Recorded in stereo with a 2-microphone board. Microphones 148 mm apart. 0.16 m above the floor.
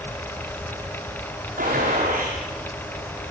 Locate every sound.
1.6 s a gunshot: 80° right, 8.5 m